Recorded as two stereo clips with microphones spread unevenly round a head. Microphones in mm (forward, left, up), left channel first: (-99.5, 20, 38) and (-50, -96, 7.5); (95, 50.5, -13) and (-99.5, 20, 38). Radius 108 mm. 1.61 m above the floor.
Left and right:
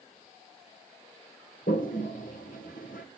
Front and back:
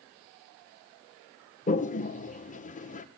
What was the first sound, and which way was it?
A toilet flushing, 65° left.